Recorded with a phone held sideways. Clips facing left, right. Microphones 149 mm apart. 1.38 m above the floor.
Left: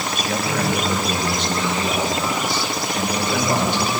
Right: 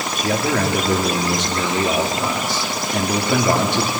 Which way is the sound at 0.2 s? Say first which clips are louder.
Right 4 dB; 75° right (ahead or behind).